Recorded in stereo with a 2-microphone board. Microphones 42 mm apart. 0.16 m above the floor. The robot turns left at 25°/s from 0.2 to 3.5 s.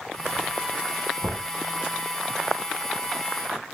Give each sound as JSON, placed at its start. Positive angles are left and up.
{"t": 1.2, "sound": "knocking", "side_deg": -35, "distance_m": 0.9}